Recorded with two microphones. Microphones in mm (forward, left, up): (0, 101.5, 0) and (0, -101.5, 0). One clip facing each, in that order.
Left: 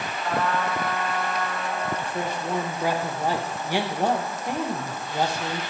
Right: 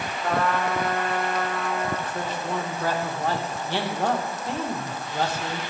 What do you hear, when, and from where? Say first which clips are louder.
0.2 s a trumpet: right 2 dB; 65° right (ahead or behind), 0.9 m
2.0 s a man speaking: left 1 dB; 15° left (ahead or behind), 0.6 m